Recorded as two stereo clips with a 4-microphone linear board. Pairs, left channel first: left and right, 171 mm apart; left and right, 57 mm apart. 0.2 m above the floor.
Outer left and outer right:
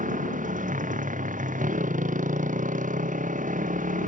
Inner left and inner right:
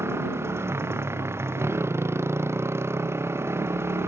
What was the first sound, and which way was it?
A motorcycle, 50° right (ahead or behind).